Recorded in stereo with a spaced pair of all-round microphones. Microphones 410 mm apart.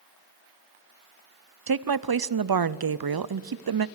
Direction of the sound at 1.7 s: 60° right (ahead or behind).